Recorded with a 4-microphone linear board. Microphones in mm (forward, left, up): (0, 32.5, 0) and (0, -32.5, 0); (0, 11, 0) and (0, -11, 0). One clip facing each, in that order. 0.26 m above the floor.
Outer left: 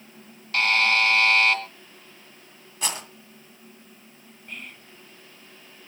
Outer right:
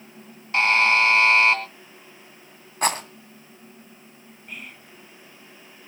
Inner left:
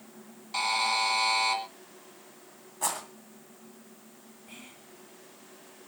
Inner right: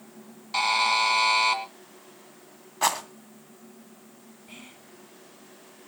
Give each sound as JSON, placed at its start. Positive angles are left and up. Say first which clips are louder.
{"t": 0.5, "sound": "a buzzer", "louder": "outer right 3 dB, inner right 4 dB", "side_deg": -20, "distance_m": 2.5}
{"t": 2.8, "sound": "a rattle", "louder": "outer right 8 dB, inner right 8 dB", "side_deg": -45, "distance_m": 2.0}
{"t": 4.5, "sound": "whispering", "louder": "even, inner right 2 dB", "side_deg": -5, "distance_m": 1.9}